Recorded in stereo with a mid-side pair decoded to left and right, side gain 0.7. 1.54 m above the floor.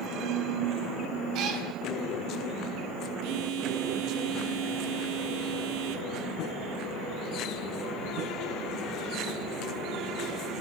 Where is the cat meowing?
55° right, 5.5 m.